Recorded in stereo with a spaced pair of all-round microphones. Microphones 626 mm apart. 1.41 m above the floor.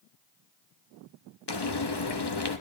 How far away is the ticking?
I don't hear ticking.